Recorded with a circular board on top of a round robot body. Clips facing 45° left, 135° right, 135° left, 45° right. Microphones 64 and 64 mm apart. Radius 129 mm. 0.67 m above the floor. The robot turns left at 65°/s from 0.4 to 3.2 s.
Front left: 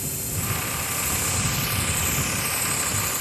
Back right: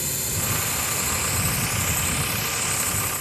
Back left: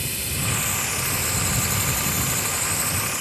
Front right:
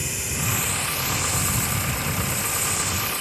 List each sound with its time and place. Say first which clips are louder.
0.0 s a drone: back right 2 dB, even; 120° right; by 3.2 s 60° left